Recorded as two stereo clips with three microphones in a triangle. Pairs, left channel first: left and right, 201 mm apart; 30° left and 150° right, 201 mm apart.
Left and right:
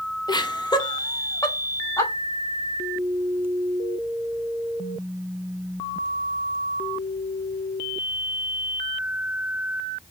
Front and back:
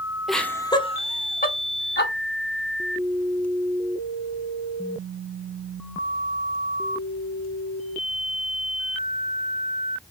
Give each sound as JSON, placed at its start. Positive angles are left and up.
{"t": 0.3, "sound": "laughter", "azimuth_deg": 120, "distance_m": 0.6}